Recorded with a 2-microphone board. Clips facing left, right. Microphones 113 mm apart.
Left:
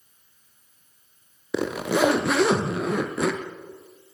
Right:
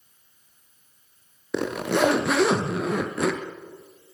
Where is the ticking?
I don't hear ticking.